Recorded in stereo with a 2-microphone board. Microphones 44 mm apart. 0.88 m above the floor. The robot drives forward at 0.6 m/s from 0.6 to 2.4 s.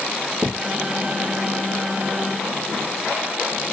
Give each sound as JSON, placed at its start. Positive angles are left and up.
{"t": 0.4, "sound": "a thud", "side_deg": -5, "distance_m": 1.0}